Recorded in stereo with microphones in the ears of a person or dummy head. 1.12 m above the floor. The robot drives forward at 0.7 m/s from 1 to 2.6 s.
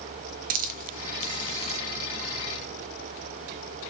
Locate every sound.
0.5 s a hiss: 40° right (ahead or behind), 0.7 m; by 1.8 s 30° right (ahead or behind), 0.8 m